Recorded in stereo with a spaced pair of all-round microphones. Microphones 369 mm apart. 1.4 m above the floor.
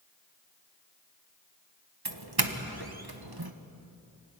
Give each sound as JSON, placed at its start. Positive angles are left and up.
{"t": 2.0, "sound": "a doorbell", "side_deg": -80, "distance_m": 1.4}